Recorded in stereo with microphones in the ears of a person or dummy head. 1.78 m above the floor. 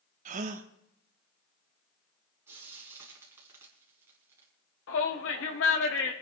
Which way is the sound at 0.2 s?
45° right (ahead or behind).